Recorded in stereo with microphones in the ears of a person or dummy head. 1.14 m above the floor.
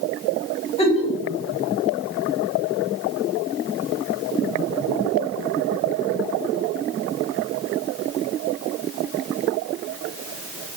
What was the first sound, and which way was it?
A giggle, 35° left (ahead or behind).